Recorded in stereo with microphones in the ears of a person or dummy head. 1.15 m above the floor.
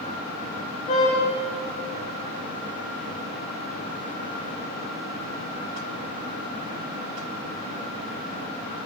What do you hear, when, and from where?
0.9 s a car horn: 35° left (ahead or behind), 7.5 m